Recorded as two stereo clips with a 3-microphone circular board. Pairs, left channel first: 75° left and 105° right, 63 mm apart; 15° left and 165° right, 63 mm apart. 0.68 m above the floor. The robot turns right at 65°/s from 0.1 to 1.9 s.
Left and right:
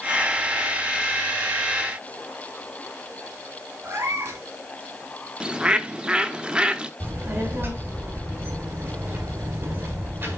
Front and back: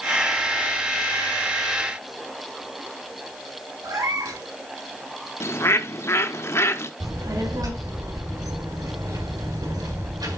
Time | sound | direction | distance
3.8 | a cat meowing | 150° right | 1.7 m
5.4 | a bird | 30° right | 0.6 m
7.0 | a child speaking | 160° right | 1.6 m